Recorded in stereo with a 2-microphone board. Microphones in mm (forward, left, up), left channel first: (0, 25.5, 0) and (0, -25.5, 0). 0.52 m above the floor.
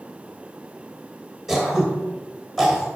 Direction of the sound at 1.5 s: Centre (ahead or behind).